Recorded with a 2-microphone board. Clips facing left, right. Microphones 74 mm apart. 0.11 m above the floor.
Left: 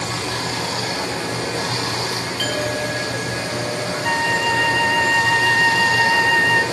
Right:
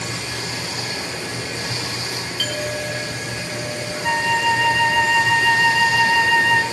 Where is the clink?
5° left (ahead or behind), 0.7 m.